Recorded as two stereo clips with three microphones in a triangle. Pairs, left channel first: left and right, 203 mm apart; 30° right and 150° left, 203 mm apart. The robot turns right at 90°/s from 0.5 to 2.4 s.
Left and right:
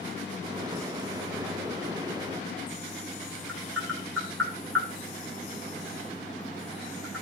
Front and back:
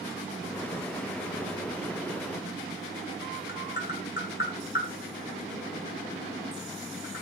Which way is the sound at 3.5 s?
5° left.